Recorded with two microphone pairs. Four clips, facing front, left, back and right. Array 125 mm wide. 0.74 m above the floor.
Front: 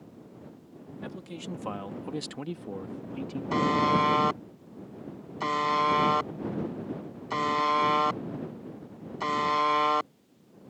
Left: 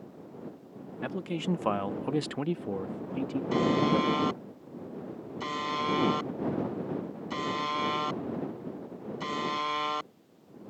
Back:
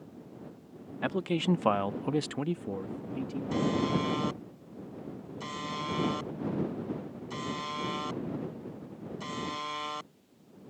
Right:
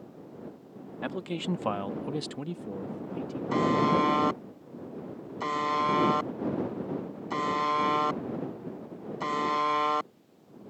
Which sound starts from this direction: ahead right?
A buzzer, at 3.5 s.